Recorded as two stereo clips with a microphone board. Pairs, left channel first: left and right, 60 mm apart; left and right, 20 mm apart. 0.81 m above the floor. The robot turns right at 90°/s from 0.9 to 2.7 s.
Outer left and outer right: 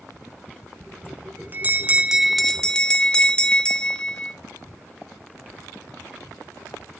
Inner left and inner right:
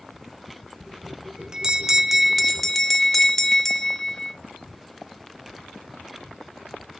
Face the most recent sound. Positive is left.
turn(degrees=30)